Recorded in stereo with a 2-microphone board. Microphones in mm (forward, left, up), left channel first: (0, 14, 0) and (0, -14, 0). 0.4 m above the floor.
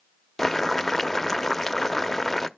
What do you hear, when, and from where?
0.4 s boiling: 10° left (ahead or behind), 0.5 m